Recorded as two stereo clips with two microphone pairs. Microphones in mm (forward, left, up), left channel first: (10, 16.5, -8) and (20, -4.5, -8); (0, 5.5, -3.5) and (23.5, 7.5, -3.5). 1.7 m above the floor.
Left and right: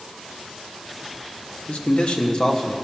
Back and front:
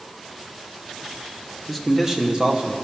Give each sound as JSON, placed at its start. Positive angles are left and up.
{"t": 1.7, "sound": "a man speaking", "azimuth_deg": 95, "distance_m": 1.3}